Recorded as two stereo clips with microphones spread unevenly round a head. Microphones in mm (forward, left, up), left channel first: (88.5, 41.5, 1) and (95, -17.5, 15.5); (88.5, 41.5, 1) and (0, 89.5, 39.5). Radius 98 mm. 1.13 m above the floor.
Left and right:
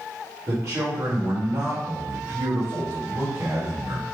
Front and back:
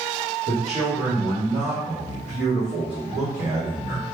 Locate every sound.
0.5 s a man speaking: 150° right, 1.5 m